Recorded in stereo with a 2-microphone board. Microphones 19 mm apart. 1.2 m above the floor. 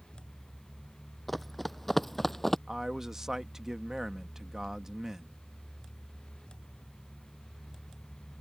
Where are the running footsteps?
5° left (ahead or behind); by 2.6 s 15° left (ahead or behind).